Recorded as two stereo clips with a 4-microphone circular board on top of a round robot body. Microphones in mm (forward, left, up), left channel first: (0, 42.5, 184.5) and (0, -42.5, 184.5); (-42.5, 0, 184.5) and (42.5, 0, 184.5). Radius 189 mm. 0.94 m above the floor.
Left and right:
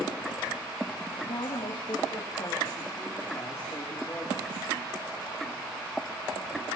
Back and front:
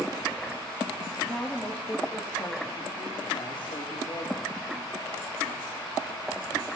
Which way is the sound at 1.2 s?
105° left.